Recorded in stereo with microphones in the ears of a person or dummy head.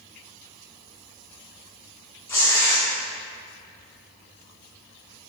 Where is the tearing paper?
20° left (ahead or behind), 0.6 m.